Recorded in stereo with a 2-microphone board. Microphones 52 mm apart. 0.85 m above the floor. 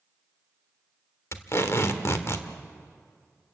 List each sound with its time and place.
1.3 s tape being pulled: 55° left (ahead or behind), 1.3 m